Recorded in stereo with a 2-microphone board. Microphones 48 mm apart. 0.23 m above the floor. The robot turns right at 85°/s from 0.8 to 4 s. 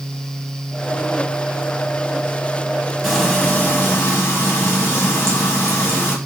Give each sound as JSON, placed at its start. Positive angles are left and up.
{"t": 3.0, "sound": "frying", "azimuth_deg": -5, "distance_m": 2.0}